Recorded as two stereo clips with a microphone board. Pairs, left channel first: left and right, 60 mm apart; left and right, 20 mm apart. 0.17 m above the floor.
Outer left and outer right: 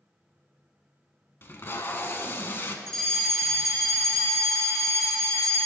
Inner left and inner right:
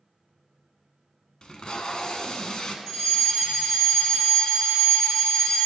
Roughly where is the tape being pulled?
Left.